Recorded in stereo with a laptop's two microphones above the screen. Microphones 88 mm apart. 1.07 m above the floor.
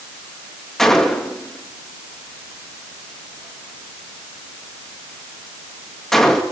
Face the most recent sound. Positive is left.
turn(degrees=5)  # may be behind; listen again after turning